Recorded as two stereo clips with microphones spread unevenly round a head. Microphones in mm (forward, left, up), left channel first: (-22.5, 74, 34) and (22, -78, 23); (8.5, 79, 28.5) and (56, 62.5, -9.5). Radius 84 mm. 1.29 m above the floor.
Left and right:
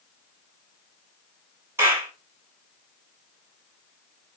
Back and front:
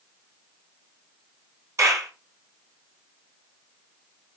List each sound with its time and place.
1.8 s a clap: straight ahead, 9.5 m